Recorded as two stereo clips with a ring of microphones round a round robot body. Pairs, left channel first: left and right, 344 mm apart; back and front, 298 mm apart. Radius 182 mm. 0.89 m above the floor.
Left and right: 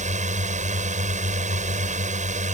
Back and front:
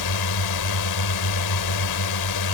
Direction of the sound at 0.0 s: 160° right.